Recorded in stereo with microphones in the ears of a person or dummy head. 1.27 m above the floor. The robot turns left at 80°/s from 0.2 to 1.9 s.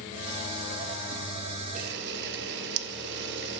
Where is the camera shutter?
45° right (ahead or behind), 0.6 m; by 3.6 s 60° right (ahead or behind), 0.6 m.